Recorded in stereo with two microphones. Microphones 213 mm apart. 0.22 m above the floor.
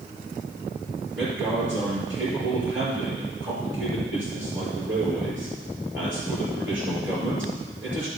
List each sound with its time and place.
1.1 s a man speaking: 65° right (ahead or behind), 4 m